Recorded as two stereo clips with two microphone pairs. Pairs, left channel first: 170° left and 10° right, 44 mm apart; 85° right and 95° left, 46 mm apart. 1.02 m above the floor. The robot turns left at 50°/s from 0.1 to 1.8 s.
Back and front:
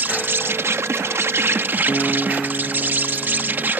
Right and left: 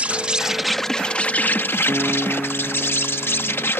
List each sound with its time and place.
0.0 s an insect: 30° left; by 3.8 s 55° right
1.9 s a guitar: 110° left